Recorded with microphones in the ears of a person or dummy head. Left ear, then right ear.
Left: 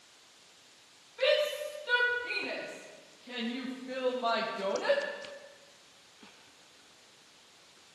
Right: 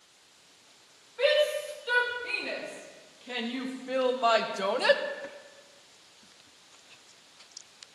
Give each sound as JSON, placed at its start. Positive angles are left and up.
{"t": 1.2, "sound": "a shout", "side_deg": -5, "distance_m": 5.5}